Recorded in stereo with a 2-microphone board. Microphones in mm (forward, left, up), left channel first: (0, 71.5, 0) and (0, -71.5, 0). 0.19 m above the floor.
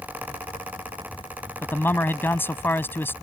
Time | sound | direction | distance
1.6 | a man speaking | 15° left (ahead or behind) | ?